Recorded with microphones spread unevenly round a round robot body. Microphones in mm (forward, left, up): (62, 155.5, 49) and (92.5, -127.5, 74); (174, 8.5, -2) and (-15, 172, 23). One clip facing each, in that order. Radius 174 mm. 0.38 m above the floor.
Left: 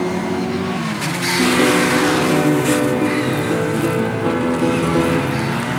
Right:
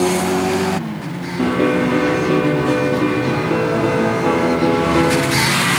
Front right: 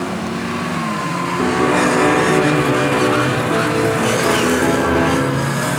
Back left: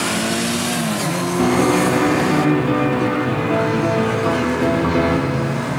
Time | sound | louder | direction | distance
1.4 | a piano | left 1 dB, even | straight behind | 5 m